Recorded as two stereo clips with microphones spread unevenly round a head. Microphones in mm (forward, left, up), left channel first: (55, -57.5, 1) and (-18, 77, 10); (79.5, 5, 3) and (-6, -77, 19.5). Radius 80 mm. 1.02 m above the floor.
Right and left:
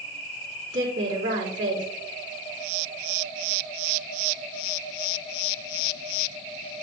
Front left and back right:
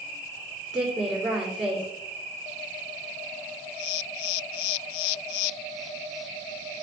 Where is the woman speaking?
135° left, 2.5 m.